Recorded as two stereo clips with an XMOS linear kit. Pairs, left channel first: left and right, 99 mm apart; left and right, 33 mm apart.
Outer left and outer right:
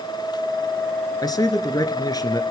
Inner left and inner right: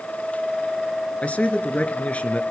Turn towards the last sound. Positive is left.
turn(degrees=45)  # may be behind; listen again after turning